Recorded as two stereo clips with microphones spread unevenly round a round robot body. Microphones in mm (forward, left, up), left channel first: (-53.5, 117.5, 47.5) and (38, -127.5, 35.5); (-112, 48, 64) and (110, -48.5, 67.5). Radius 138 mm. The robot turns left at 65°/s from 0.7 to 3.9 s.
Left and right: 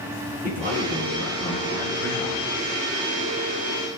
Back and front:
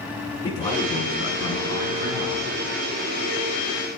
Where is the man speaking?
130° right, 5.5 m; by 2.5 s 120° left, 5.5 m.